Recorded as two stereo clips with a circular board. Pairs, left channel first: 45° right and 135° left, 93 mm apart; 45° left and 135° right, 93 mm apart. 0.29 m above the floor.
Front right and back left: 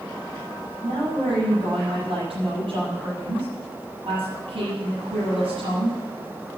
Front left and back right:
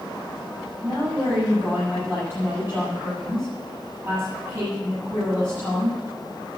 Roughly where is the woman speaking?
Behind left.